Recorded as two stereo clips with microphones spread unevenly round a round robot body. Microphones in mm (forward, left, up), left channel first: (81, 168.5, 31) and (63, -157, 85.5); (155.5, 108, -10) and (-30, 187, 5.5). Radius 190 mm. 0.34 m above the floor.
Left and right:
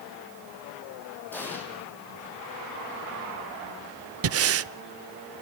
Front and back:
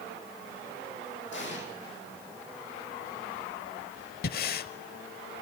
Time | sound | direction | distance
1.3 | an explosion | straight ahead | 8 m
4.2 | breathing | 45° right | 0.6 m